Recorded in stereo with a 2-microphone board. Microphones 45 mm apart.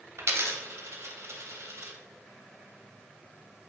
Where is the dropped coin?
75° right (ahead or behind), 0.6 m.